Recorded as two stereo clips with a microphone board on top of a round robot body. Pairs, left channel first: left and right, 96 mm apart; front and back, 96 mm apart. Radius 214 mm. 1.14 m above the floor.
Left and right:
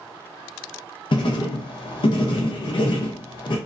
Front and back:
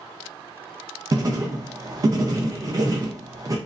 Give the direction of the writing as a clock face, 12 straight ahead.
8 o'clock.